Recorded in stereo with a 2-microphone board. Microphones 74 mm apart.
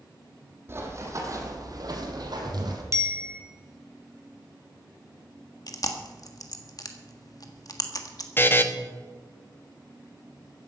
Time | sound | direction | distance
0.7 | running footsteps | 30° right (ahead or behind) | 3.5 m
2.9 | a bicycle bell | 35° right (ahead or behind) | 2 m
5.7 | chewing | 50° left (ahead or behind) | 1.6 m
8.4 | a buzzer | 30° left (ahead or behind) | 1.2 m